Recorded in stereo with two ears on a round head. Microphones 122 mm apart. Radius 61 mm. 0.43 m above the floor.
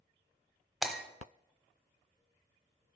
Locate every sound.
0.8 s breaking glass: centre (ahead or behind), 0.8 m